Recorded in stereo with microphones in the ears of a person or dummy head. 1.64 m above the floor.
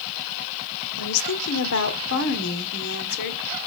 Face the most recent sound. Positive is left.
turn(degrees=55)  # may be behind; listen again after turning